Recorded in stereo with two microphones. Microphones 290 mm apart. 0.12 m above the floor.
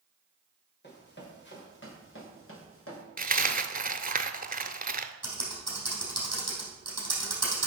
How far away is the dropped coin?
About 0.6 m.